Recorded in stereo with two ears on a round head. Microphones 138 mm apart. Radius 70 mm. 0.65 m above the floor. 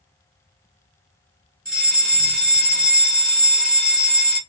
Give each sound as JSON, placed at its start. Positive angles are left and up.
{"t": 1.6, "sound": "a fire alarm", "side_deg": 5, "distance_m": 2.5}